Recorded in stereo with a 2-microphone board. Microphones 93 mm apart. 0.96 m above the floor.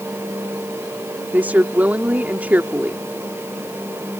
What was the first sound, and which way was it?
A woman speaking, 20° right (ahead or behind).